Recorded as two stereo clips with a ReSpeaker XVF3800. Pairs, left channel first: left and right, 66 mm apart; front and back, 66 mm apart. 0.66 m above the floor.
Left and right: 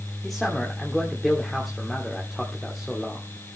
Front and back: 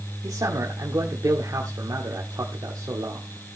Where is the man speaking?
175° left, 1.5 m.